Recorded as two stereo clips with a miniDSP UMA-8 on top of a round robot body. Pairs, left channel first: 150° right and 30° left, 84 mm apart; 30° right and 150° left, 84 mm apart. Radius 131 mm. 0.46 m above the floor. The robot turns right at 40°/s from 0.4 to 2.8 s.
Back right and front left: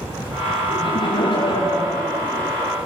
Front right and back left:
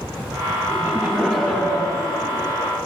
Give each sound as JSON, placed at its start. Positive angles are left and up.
{"t": 0.7, "sound": "laughter", "azimuth_deg": -140, "distance_m": 5.5}